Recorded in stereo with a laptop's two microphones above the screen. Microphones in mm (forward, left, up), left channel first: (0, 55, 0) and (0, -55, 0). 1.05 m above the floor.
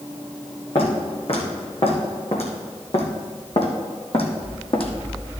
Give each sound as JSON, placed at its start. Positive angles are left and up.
{"t": 0.8, "sound": "footsteps", "side_deg": 55, "distance_m": 3.0}